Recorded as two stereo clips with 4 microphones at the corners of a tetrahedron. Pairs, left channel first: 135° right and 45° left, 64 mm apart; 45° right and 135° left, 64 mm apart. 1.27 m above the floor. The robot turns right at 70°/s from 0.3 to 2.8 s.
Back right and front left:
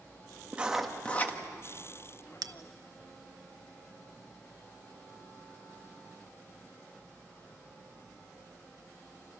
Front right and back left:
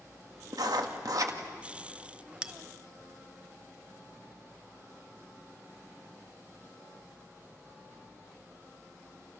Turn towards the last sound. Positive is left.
turn(degrees=85)